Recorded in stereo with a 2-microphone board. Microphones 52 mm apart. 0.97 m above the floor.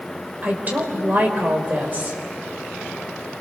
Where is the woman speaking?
35° right (ahead or behind), 4 m.